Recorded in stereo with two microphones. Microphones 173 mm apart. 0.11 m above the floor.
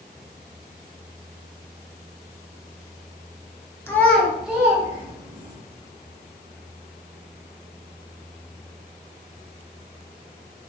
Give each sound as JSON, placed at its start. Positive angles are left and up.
{"t": 3.9, "sound": "a child speaking", "side_deg": 15, "distance_m": 0.7}